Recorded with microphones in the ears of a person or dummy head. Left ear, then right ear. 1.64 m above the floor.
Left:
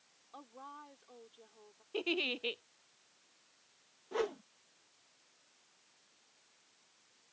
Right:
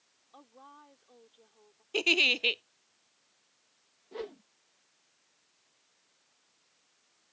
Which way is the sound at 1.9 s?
70° right (ahead or behind).